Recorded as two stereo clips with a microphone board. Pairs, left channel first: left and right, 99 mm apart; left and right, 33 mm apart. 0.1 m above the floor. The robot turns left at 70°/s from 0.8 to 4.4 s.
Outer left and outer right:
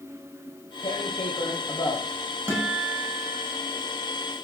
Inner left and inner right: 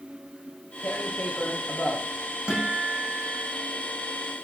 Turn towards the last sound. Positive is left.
turn(degrees=-160)